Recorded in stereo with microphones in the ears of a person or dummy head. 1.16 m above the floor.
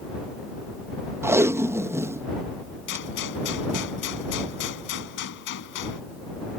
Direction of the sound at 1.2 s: 15° right (ahead or behind).